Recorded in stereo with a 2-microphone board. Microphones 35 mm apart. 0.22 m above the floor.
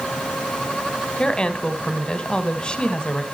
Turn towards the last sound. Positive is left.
turn(degrees=25)  # may be behind; listen again after turning